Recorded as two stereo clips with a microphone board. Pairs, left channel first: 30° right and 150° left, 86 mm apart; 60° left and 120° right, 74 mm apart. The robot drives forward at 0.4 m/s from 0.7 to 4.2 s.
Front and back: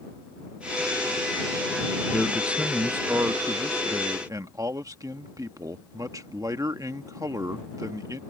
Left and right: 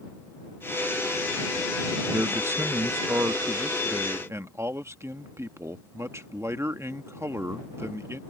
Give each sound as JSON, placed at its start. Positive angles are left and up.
{"t": 2.1, "sound": "a man speaking", "azimuth_deg": -125}